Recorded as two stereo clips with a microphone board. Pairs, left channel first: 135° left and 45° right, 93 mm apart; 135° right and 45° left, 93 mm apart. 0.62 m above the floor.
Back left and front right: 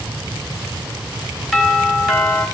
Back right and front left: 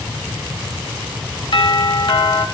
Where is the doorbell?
135° right, 2.5 m.